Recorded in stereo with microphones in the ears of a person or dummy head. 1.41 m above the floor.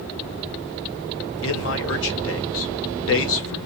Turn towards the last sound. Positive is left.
turn(degrees=70)  # may be behind; listen again after turning